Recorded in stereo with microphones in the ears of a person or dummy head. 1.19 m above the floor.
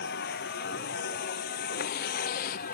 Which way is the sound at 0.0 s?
65° left (ahead or behind).